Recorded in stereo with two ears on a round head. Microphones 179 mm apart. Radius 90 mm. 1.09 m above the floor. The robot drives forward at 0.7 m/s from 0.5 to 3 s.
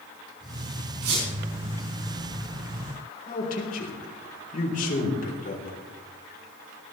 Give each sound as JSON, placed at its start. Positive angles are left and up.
{"t": 1.0, "sound": "a squeak", "side_deg": -85, "distance_m": 6.5}
{"t": 3.3, "sound": "a man speaking", "side_deg": 45, "distance_m": 3.5}